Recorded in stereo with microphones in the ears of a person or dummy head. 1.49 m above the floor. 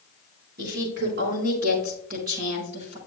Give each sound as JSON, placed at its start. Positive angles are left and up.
{"t": 0.6, "sound": "a woman speaking", "side_deg": -65, "distance_m": 5.0}